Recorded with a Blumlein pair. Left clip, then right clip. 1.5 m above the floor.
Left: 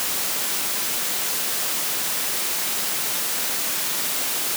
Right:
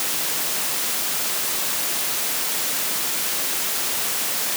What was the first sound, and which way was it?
Only background noise.